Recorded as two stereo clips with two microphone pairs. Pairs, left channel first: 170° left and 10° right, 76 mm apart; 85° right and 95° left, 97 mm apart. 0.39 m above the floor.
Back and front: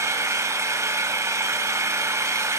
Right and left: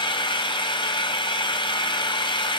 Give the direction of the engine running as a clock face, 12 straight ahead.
2 o'clock.